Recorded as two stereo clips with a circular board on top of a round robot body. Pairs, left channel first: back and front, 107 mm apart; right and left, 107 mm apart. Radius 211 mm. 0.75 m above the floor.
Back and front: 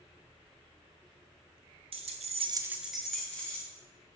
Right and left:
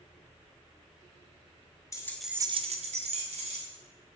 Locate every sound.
1.9 s keys jangling: 30° right, 0.9 m; by 3.6 s 100° left, 1.9 m